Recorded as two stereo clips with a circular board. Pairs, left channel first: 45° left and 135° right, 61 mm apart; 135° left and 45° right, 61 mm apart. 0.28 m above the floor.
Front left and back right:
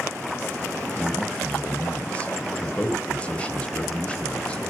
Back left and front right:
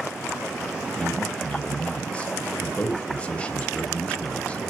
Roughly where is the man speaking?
Left.